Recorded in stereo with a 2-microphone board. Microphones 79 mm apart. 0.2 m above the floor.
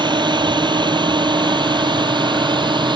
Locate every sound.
0.0 s a drone: 75° right (ahead or behind)